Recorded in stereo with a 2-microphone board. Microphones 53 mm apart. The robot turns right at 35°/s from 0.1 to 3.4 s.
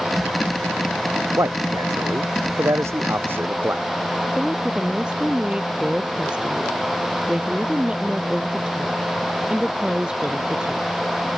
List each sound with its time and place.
1.4 s a man speaking: 65° right (ahead or behind); by 3.8 s 45° right (ahead or behind)
4.3 s a woman speaking: 20° right (ahead or behind)